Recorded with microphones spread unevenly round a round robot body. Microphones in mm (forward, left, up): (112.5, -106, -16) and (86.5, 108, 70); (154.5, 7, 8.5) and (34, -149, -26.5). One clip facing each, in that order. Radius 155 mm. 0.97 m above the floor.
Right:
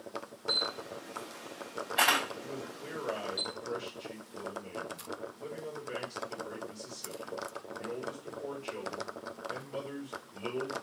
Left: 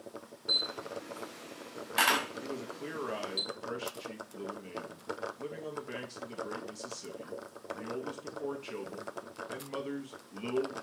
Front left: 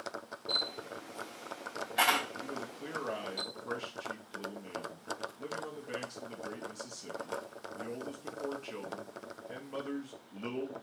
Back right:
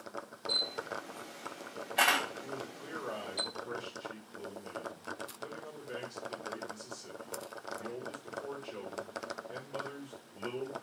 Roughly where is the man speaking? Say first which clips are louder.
Left 2 dB, front left 1 dB; left.